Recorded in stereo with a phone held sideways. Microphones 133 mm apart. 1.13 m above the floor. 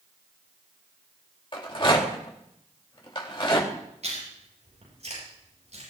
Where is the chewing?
60° right (ahead or behind), 9 m.